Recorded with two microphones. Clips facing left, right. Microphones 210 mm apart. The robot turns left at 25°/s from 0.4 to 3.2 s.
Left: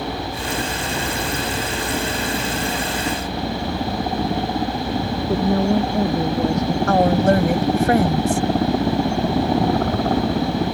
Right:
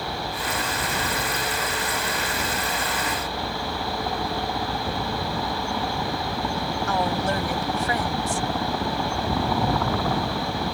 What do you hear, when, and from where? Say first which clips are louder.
0.0 s a helicopter: left 5 dB; 115° left; by 10.7 s 45° left
5.3 s a woman speaking: left 11 dB; 80° left
6.9 s a woman speaking: left 10 dB; 60° left (ahead or behind)